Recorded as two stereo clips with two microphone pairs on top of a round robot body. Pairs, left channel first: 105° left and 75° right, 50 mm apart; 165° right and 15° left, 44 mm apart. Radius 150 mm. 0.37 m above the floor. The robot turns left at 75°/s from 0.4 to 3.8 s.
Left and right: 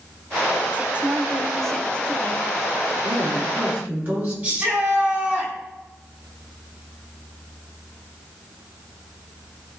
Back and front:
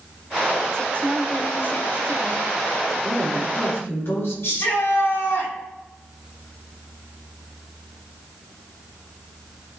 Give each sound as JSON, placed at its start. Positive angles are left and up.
{"t": 0.7, "sound": "a woman speaking", "azimuth_deg": -100, "distance_m": 1.6}
{"t": 3.0, "sound": "a woman speaking", "azimuth_deg": -65, "distance_m": 6.5}
{"t": 4.4, "sound": "a shout", "azimuth_deg": -130, "distance_m": 5.5}